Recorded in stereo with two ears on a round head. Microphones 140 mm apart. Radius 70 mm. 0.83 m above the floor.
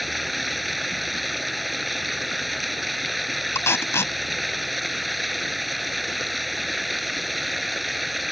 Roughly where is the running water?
Centre.